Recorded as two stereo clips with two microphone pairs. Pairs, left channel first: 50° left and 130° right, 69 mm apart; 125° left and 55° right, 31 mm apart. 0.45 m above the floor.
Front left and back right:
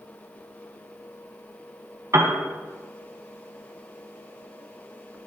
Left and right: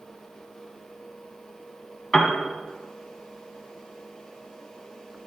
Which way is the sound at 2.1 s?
160° right.